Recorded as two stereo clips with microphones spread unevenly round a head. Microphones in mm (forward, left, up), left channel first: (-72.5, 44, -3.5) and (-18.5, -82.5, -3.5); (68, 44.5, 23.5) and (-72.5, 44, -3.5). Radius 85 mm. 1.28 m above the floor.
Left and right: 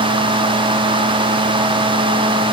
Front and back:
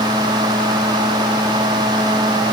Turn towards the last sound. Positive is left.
No sound to turn to.